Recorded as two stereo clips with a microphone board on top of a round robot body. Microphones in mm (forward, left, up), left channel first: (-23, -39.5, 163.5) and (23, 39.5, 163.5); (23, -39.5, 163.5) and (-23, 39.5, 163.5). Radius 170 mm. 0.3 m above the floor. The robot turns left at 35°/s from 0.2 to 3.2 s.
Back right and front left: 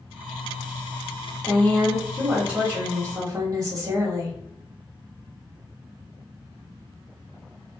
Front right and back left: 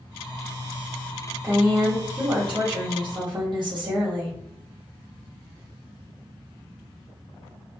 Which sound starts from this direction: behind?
A woman speaking, at 1.4 s.